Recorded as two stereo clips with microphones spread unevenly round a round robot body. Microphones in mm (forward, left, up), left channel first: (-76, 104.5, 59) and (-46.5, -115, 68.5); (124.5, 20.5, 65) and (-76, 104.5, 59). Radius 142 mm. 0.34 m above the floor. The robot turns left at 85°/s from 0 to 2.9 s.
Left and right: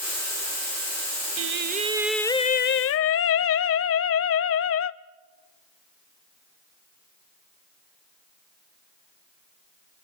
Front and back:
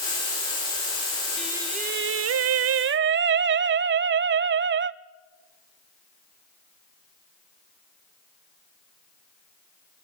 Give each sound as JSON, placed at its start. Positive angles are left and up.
{"t": 1.4, "sound": "singing", "azimuth_deg": -110, "distance_m": 0.6}